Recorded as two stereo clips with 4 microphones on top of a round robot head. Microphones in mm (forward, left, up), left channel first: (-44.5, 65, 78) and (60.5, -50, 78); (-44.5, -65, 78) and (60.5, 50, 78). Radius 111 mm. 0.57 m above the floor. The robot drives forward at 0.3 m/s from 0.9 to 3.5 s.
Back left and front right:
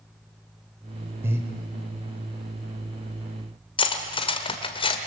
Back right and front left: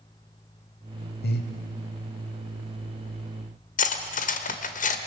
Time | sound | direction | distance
1.2 | breathing | 120° right | 1.6 m
3.8 | cutlery clinking | 170° right | 1.6 m